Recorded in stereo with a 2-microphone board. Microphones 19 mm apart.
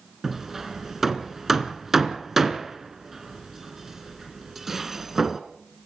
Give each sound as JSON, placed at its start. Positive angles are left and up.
{"t": 0.2, "sound": "hammering", "side_deg": -20, "distance_m": 2.0}